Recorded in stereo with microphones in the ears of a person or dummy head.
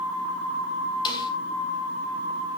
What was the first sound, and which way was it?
A snare drum, 30° left (ahead or behind).